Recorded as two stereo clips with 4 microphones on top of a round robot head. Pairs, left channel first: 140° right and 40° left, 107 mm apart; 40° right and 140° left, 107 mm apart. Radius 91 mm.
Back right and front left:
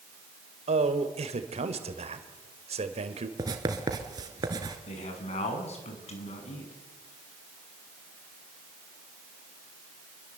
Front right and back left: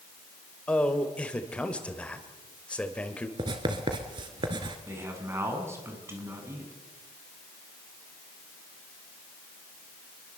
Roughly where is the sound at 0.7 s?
Ahead left.